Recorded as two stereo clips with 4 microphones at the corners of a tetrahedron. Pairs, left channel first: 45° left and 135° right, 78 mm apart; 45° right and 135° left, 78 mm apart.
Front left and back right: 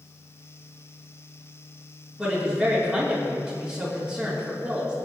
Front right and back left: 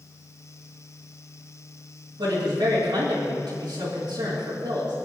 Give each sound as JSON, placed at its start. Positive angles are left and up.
{"t": 2.2, "sound": "a woman speaking", "azimuth_deg": 130, "distance_m": 3.0}